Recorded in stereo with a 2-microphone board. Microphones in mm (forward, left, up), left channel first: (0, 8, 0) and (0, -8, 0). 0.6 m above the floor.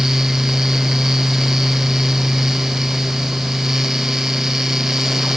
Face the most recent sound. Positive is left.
No sound to turn to.